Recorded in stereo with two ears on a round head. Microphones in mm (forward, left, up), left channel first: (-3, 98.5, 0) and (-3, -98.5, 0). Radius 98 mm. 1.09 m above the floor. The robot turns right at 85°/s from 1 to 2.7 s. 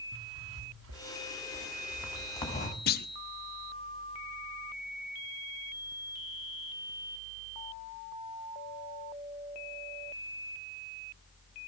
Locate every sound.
0.1 s a zipper: 100° right, 2.5 m; by 2.8 s 45° left, 2.5 m
2.9 s a clunk: 45° left (ahead or behind), 0.7 m